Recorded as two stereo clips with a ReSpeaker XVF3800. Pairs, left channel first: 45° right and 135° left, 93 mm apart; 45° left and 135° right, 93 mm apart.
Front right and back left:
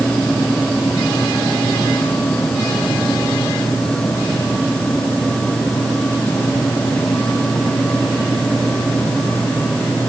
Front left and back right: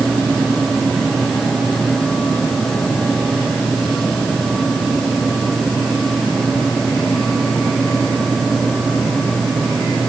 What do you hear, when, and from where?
Only background noise.